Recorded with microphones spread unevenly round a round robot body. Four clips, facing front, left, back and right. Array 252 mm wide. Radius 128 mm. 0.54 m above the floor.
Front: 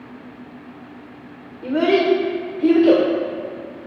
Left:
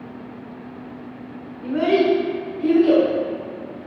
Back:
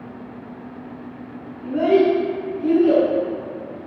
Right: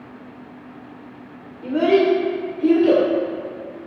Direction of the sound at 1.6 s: 10° right.